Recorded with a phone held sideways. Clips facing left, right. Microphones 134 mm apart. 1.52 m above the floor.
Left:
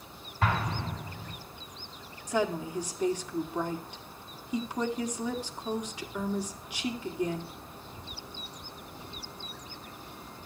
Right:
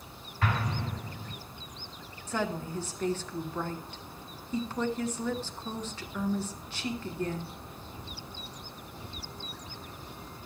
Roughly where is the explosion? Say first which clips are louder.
Left 2 dB; left.